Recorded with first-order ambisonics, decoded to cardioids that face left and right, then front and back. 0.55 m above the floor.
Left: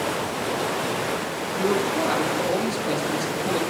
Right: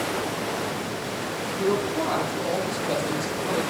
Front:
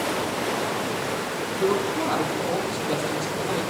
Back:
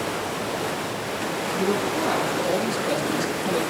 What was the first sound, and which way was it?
A man speaking, 115° left.